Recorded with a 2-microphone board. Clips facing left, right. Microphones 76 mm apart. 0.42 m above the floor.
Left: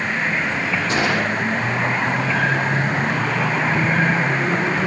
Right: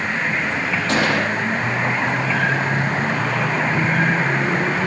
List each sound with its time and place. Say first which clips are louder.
0.9 s a gunshot: right 2 dB; 85° right, 7.5 m